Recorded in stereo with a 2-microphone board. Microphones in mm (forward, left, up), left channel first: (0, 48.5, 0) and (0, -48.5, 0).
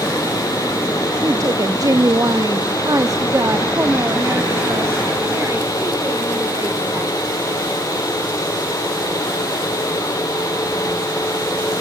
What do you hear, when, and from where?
1.2 s a woman speaking: 40° right (ahead or behind), 1.2 m; by 7.1 s 25° right (ahead or behind), 4 m